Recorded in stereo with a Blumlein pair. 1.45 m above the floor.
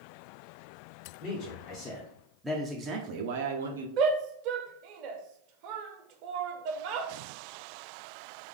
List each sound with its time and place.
1.2 s a man speaking: 35° left, 1.2 m; by 3.9 s 70° right, 0.9 m
4.0 s a shout: 40° right, 0.8 m